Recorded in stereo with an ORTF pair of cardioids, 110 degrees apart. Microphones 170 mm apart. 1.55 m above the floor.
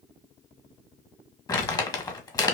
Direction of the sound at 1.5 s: 25° left.